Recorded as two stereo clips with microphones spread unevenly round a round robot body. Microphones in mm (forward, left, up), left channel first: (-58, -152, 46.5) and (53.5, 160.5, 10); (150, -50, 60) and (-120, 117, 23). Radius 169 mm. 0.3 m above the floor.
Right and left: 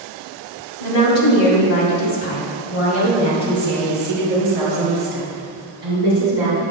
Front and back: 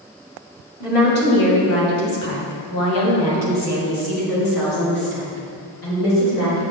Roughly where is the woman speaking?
Right.